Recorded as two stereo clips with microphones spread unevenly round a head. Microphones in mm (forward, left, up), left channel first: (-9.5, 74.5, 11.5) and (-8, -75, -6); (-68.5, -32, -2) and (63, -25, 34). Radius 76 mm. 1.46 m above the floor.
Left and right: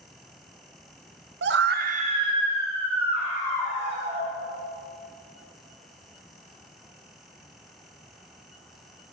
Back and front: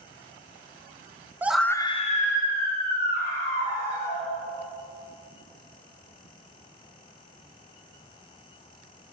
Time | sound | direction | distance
1.4 | a scream | 75° right | 0.7 m